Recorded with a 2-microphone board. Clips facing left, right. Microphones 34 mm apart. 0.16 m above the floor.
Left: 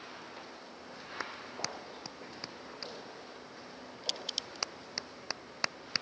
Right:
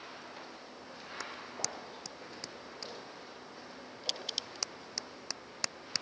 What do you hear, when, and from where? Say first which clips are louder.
1.2 s a clap: left 2 dB; 20° left (ahead or behind)